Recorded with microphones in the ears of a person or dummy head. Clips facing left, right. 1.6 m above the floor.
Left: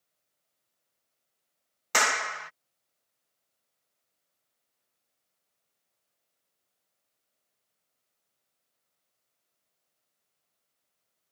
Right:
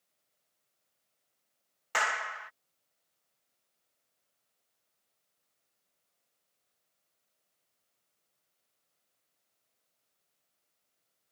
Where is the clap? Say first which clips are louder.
Left 5 dB; 65° left (ahead or behind).